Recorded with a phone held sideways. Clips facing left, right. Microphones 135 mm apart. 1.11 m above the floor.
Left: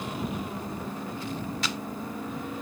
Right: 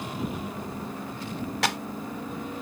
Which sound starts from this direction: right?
A clap, at 1.6 s.